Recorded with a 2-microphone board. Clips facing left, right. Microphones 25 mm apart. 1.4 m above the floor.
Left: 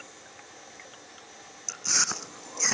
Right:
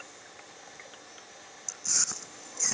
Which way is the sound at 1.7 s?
30° left (ahead or behind).